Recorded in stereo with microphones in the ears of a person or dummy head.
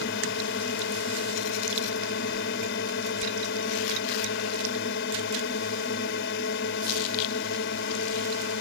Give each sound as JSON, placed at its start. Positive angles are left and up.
{"t": 0.0, "sound": "a drone", "side_deg": 65}